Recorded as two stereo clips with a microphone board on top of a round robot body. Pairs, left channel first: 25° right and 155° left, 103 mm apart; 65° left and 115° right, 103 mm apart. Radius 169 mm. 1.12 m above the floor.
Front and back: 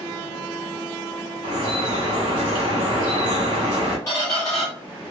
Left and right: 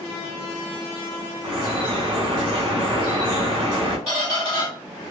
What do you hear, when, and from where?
1.4 s dripping: 160° right, 1.2 m
4.1 s a squeak: 85° right, 0.5 m